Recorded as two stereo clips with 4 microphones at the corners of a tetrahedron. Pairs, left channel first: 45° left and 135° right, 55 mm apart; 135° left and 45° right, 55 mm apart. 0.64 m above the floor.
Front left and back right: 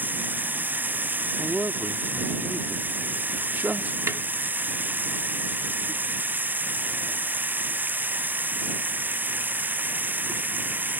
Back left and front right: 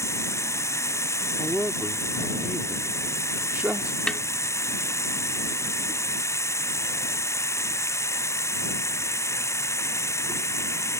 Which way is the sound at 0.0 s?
165° left.